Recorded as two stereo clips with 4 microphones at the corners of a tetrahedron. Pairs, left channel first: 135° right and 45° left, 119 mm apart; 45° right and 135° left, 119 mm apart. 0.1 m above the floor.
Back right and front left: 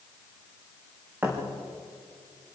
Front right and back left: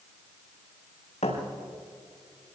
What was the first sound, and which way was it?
A thud, 25° right.